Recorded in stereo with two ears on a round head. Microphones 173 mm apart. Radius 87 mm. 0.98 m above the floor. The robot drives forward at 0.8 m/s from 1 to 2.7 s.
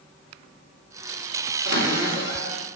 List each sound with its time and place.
1.6 s a cupboard door: 75° right (ahead or behind), 3.5 m; by 2.6 s 80° right, 3 m